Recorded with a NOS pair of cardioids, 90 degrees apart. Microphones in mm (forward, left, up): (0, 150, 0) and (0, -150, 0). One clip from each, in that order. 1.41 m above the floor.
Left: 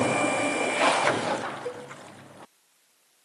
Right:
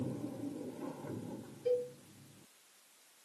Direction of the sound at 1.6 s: 35° left.